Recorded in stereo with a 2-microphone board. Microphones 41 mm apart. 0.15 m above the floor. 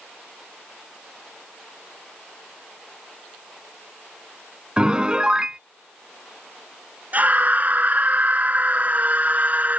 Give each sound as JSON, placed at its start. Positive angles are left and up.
{"t": 4.8, "sound": "a piano", "side_deg": -20}
{"t": 7.1, "sound": "a scream", "side_deg": -40}